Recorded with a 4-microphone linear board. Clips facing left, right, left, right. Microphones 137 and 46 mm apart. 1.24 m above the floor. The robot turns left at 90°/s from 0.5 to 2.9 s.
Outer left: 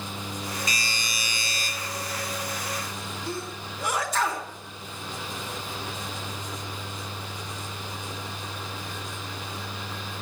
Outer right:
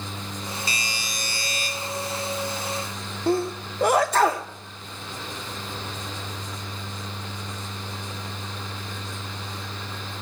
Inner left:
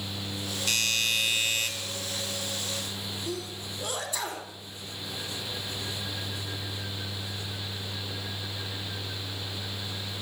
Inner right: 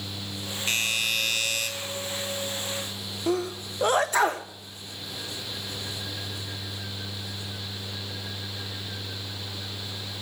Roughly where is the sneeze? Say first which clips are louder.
Outer right 14 dB, inner right 13 dB; right.